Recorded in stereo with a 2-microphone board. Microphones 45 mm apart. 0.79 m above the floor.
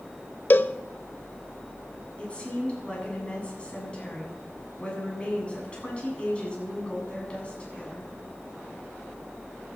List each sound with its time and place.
0.5 s a cowbell: 45° left (ahead or behind), 0.7 m
2.2 s a woman speaking: 25° left (ahead or behind), 8 m